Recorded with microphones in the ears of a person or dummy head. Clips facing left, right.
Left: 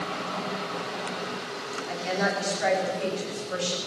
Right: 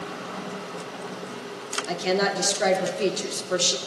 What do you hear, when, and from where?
1.9 s a woman speaking: 60° right (ahead or behind), 2.5 m